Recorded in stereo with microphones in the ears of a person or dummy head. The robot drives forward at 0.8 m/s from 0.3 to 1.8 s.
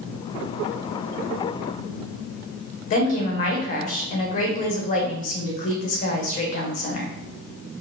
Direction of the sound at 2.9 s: 45° left (ahead or behind).